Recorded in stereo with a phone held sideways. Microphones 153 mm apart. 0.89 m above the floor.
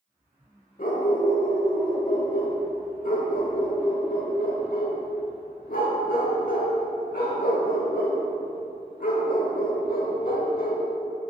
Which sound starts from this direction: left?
A dog barking, at 0.8 s.